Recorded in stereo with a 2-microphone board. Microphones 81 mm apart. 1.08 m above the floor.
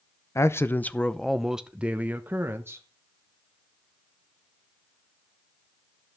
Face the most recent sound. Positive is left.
turn(degrees=-35)  # may be behind; listen again after turning